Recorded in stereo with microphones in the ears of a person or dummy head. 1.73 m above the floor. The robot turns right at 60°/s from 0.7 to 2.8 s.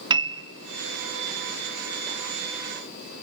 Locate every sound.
0.1 s a piano: 25° right (ahead or behind), 0.7 m